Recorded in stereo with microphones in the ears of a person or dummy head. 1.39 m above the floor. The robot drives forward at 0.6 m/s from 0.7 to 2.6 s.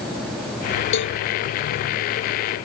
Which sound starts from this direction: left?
A cowbell, at 0.9 s.